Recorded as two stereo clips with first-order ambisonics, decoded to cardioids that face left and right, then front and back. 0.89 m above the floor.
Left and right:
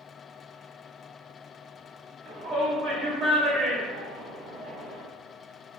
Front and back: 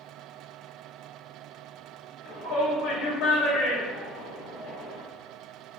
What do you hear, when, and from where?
2.2 s a shout: 10° right, 1.9 m